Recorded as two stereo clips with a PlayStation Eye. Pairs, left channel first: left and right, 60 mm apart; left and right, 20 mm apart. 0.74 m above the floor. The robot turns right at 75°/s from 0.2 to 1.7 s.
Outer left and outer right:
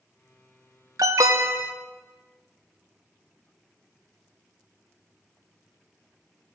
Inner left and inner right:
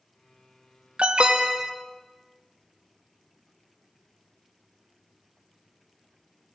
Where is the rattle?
I don't hear a rattle.